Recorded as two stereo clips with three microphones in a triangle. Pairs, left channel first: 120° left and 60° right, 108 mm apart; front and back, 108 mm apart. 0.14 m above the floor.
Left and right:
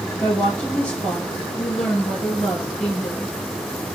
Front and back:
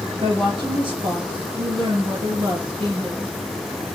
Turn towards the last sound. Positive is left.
turn(degrees=-160)